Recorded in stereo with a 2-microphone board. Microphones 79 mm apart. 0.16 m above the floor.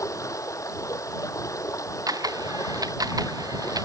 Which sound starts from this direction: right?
A camera shutter, at 2.1 s.